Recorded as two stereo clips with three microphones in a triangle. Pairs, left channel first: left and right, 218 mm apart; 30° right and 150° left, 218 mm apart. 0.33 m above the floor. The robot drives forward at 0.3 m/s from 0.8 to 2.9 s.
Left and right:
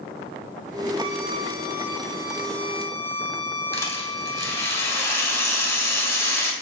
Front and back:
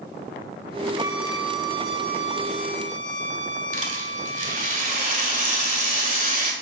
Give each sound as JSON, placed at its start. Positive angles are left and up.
{"t": 1.0, "sound": "a violin", "azimuth_deg": -140, "distance_m": 1.0}
{"t": 3.7, "sound": "a rattle", "azimuth_deg": 160, "distance_m": 1.6}